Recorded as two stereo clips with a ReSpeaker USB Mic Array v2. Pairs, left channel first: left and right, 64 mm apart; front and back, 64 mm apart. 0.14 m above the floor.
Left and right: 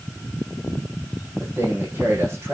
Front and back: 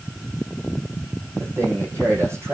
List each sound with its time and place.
1.4 s a man speaking: 140° right, 7 m